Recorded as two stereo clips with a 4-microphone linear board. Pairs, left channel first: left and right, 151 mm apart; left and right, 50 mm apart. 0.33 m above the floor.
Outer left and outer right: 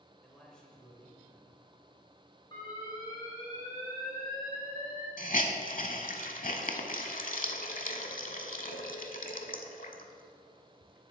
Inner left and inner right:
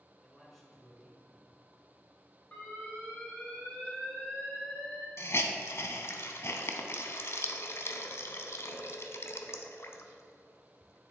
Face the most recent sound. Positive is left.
turn(degrees=65)  # may be behind; listen again after turning